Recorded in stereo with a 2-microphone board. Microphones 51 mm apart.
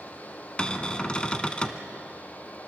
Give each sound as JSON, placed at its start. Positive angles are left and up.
{"t": 0.6, "sound": "a cupboard door", "side_deg": 20, "distance_m": 1.1}